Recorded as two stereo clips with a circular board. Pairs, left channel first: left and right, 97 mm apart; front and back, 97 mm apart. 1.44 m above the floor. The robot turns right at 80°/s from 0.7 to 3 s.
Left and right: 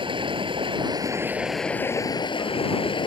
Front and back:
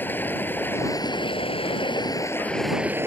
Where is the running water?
70° right; by 3.1 s 115° left.